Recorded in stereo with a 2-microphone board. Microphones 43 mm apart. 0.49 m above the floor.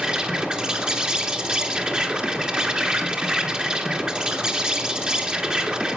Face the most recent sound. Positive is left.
turn(degrees=-25)  # may be behind; listen again after turning